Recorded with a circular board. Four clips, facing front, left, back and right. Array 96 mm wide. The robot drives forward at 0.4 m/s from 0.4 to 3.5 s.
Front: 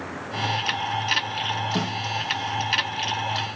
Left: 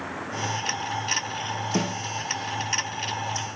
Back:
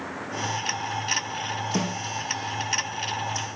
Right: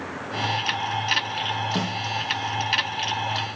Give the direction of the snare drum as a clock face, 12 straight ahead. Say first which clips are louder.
Left 1 dB, even; 8 o'clock.